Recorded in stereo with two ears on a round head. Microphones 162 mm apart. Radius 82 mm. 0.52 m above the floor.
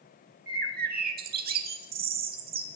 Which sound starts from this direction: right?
A bird, at 0.5 s.